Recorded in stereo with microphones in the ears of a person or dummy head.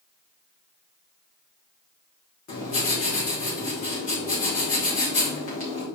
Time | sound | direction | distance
2.5 | writing | 40° left (ahead or behind) | 4.5 m